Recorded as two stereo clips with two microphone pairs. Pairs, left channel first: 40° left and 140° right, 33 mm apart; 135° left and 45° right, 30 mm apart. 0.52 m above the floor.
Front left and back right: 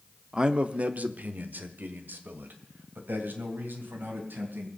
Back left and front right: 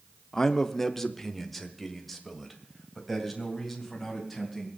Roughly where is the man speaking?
Behind.